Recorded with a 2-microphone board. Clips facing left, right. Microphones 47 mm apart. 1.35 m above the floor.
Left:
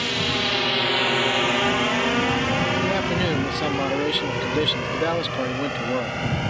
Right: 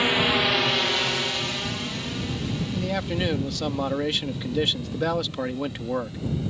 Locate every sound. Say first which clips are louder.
0.0 s a drone: right 2 dB; 20° right (ahead or behind); by 6.5 s 75° left (ahead or behind)
2.7 s a man speaking: left 5 dB; 5° left (ahead or behind)